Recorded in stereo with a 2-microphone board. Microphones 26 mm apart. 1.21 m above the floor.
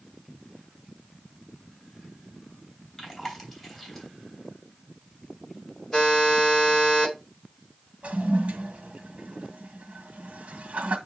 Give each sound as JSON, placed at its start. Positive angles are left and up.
{"t": 3.0, "sound": "chewing", "side_deg": 15, "distance_m": 3.0}
{"t": 5.9, "sound": "a buzzer", "side_deg": 20, "distance_m": 6.5}
{"t": 8.0, "sound": "a toilet flushing", "side_deg": -60, "distance_m": 1.8}